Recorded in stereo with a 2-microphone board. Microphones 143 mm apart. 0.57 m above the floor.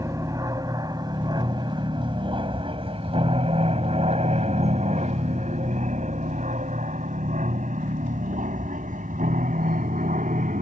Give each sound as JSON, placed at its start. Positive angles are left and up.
{"t": 0.0, "sound": "an aircraft", "side_deg": -25}